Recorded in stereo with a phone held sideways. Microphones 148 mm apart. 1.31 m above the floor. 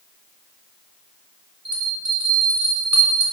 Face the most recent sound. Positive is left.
turn(degrees=-10)  # may be behind; listen again after turning